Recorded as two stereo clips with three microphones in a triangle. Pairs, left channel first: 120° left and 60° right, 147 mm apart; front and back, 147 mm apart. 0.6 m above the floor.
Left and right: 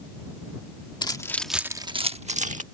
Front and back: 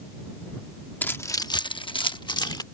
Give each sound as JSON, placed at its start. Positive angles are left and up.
{"t": 1.0, "sound": "keys jangling", "azimuth_deg": 75}